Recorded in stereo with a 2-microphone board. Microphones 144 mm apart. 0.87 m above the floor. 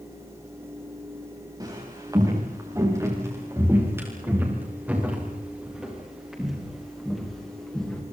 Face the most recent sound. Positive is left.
turn(degrees=5)  # may be behind; listen again after turning